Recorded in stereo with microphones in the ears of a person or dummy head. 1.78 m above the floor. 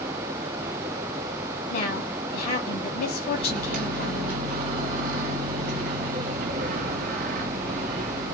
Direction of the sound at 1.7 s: 40° left (ahead or behind).